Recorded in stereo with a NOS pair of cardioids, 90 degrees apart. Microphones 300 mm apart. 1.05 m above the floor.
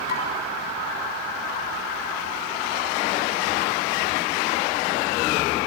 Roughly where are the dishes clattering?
Ahead left.